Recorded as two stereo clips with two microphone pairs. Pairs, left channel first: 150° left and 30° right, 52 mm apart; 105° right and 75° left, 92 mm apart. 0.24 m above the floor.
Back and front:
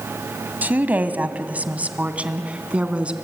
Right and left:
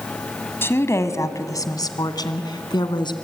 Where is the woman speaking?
60° right, 1.5 m; by 3.1 s 90° right, 2.5 m.